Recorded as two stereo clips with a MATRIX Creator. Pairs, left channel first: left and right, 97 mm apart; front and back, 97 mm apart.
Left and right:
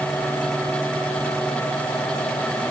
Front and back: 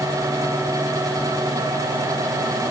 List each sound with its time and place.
Only background noise.